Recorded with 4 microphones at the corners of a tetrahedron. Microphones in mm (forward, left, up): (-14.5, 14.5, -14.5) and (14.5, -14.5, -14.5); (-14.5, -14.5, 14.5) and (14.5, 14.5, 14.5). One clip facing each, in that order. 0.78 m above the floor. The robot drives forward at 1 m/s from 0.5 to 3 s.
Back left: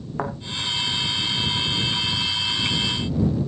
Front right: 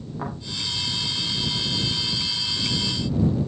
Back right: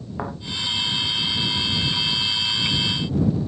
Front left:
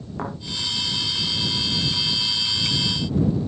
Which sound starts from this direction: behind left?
A thud, at 0.2 s.